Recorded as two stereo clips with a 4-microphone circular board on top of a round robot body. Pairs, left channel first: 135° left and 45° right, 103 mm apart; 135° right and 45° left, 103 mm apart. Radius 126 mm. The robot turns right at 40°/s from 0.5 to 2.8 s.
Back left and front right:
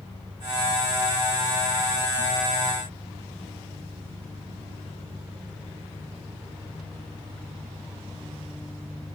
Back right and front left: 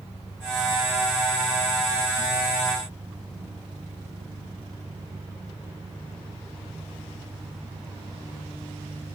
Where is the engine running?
105° right; by 9.2 s 15° right.